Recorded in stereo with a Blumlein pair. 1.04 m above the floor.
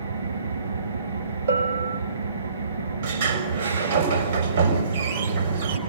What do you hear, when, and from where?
0.0 s an engine running: 70° right, 6.5 m
1.5 s a bell: 70° right, 4.5 m
3.0 s a sliding door: 60° right, 4 m